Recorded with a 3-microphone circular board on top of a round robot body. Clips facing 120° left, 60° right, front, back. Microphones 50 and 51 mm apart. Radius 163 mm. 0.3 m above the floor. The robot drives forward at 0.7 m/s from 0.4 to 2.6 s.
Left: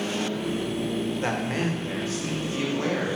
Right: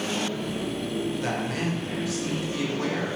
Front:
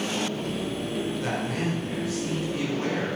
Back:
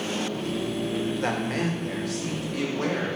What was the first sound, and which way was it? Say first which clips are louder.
A man speaking: left 1 dB, back 2 dB; 160° left.